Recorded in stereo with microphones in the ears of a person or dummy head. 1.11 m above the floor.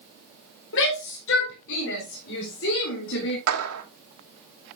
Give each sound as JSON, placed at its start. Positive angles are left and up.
{"t": 0.7, "sound": "a shout", "side_deg": 70, "distance_m": 4.0}
{"t": 3.5, "sound": "a clap", "side_deg": -85, "distance_m": 2.5}